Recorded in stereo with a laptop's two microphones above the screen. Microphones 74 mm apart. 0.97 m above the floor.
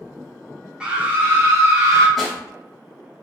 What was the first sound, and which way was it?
A scream, 15° right (ahead or behind).